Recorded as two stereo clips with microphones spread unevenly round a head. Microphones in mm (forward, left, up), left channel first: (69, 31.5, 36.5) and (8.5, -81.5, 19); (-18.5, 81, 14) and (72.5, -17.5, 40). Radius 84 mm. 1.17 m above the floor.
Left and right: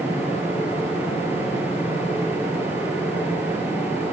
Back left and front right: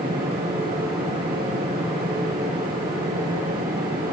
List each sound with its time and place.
0.0 s a fan: 45° right, 8.5 m